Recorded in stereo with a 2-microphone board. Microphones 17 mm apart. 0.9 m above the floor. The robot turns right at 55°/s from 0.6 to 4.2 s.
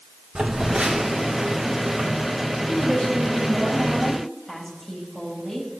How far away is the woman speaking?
About 5.5 m.